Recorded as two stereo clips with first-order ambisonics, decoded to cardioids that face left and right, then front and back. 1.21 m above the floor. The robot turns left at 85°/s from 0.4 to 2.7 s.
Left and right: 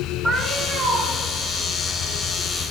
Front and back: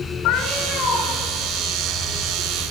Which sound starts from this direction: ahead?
A cat meowing, at 0.2 s.